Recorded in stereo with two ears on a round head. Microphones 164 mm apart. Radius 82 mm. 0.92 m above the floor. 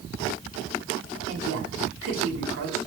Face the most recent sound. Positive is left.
turn(degrees=-85)